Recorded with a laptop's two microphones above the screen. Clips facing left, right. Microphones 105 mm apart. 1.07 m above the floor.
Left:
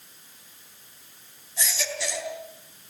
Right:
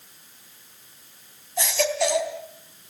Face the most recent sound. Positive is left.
turn(degrees=-60)  # may be behind; listen again after turning